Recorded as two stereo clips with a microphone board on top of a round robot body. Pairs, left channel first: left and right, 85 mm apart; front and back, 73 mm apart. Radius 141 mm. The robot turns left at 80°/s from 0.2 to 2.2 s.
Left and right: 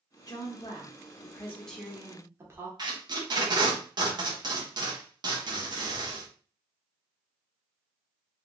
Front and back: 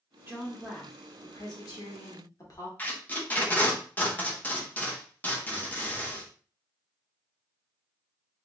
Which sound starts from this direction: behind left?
A woman speaking, at 0.3 s.